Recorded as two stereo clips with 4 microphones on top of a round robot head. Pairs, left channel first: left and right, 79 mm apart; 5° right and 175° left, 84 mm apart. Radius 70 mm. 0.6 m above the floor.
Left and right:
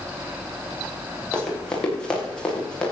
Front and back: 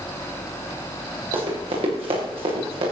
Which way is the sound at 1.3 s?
170° left.